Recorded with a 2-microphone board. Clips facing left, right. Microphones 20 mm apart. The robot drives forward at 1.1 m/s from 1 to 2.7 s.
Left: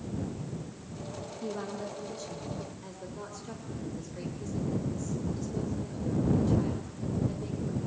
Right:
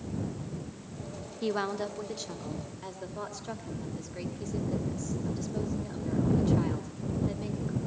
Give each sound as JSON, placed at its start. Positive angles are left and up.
{"t": 1.4, "sound": "a woman speaking", "side_deg": -50, "distance_m": 1.0}